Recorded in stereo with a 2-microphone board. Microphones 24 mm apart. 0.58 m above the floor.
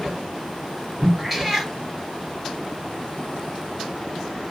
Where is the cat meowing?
10° right (ahead or behind), 2.5 m.